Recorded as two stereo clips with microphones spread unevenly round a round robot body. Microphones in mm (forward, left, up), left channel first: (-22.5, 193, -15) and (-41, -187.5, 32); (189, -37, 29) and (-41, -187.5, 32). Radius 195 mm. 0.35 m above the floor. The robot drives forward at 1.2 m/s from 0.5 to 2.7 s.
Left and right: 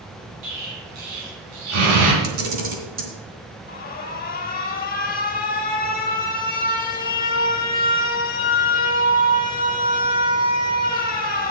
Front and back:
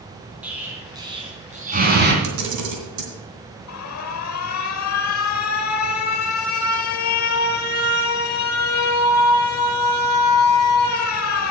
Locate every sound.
0.4 s an explosion: 60° right, 3.5 m; by 2.1 s 95° right, 3 m
2.2 s a camera shutter: 145° right, 2 m; by 3.1 s 155° right, 2.5 m
3.7 s an alarm: 30° left, 1.0 m